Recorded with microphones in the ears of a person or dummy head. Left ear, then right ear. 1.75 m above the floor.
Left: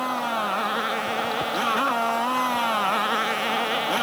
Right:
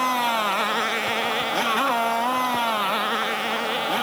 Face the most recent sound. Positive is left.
turn(degrees=5)  # may be behind; listen again after turning